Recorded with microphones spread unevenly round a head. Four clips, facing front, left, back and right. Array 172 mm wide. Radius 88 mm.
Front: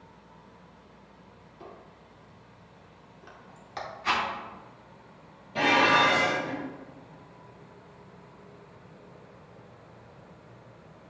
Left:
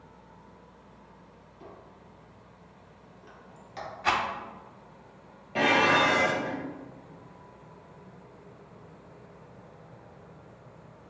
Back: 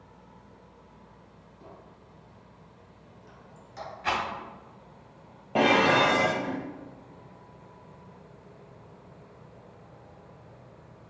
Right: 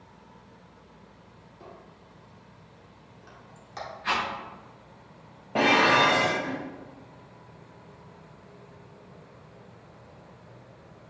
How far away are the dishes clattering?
About 0.8 m.